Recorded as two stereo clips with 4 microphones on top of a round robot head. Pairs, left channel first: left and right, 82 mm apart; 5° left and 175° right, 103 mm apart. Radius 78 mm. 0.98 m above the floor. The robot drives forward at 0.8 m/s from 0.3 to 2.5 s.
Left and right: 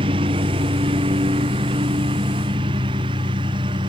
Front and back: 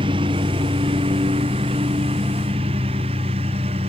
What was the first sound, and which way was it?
A lawn mower, 125° right.